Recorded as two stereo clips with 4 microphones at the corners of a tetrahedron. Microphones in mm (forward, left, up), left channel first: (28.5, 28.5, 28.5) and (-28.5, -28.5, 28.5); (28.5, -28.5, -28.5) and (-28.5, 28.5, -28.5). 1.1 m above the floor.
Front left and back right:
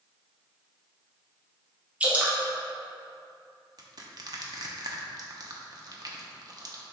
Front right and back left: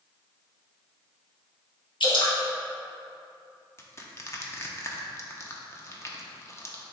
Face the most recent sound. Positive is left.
turn(degrees=-100)